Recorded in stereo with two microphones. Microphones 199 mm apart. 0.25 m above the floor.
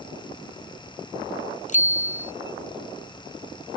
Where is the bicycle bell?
40° left (ahead or behind).